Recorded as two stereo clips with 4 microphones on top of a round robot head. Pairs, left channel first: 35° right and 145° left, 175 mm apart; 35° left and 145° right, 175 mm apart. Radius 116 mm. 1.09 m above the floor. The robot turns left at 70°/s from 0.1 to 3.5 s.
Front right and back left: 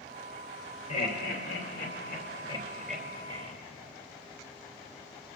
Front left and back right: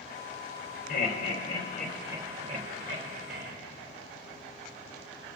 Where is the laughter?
15° left, 2 m; by 3.5 s 170° right, 2 m.